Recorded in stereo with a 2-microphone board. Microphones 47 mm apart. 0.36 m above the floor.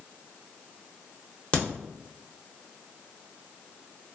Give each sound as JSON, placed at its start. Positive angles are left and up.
{"t": 1.5, "sound": "a crack", "side_deg": 25, "distance_m": 0.8}